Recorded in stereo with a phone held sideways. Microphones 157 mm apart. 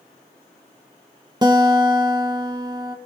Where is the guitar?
25° right (ahead or behind), 2.0 m.